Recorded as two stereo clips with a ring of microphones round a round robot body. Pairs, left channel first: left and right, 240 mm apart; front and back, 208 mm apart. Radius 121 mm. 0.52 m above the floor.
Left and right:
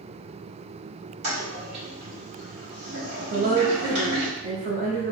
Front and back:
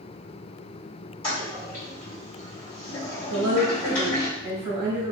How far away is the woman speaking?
About 1.2 m.